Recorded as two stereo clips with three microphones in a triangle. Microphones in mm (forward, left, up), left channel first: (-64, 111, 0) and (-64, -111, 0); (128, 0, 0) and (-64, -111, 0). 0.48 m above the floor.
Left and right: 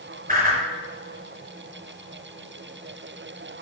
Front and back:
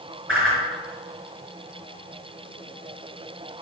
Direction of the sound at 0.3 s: 140° right.